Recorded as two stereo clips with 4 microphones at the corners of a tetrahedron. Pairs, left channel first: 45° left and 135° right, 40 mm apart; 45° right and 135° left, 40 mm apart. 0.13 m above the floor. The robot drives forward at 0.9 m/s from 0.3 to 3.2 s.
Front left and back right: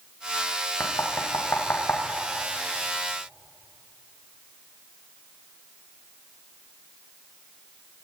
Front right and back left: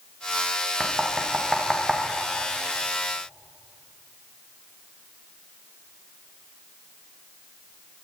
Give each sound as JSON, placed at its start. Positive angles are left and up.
{"t": 0.8, "sound": "knocking", "azimuth_deg": 40, "distance_m": 7.0}